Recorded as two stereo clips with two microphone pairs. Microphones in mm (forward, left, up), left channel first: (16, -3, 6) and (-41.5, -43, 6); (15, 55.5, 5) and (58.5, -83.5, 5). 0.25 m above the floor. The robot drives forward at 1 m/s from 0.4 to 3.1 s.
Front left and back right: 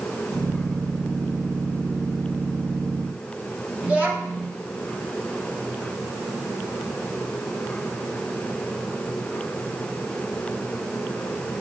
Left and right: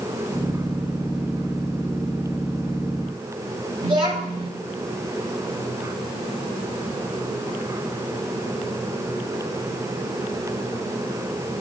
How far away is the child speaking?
About 1.2 m.